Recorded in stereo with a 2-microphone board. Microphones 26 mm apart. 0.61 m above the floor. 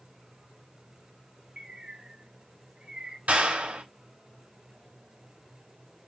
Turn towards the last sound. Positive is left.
turn(degrees=-65)  # may be behind; listen again after turning